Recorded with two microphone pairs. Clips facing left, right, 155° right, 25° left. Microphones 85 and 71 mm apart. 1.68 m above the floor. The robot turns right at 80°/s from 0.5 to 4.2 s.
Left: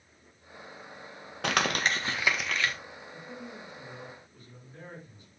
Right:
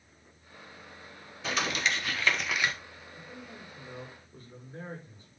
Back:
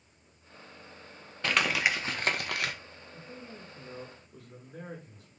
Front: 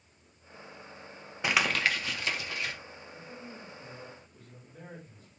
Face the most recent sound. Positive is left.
turn(degrees=-140)